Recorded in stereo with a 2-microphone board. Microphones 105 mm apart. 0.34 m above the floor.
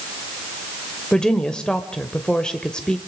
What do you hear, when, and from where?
1.1 s a woman speaking: 10° left (ahead or behind), 1.1 m